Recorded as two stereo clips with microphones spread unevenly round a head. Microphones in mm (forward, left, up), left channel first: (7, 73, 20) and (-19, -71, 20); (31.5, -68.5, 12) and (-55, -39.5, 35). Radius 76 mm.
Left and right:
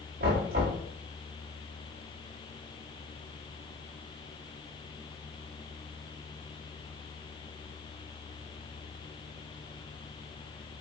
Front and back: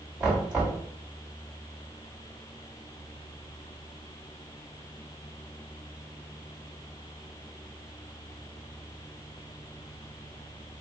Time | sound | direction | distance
0.2 | knocking | 120° right | 3.5 m